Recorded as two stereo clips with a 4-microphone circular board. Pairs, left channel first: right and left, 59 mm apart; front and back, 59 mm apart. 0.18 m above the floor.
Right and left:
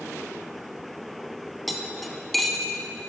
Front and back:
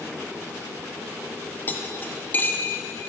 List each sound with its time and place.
1.7 s cutlery clinking: straight ahead, 0.6 m